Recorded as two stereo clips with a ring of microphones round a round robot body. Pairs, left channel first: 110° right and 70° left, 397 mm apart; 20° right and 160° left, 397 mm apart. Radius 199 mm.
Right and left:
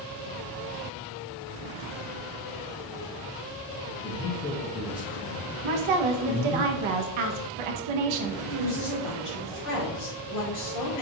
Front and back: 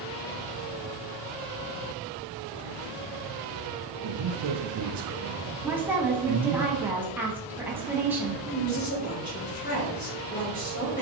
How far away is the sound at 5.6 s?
About 0.6 m.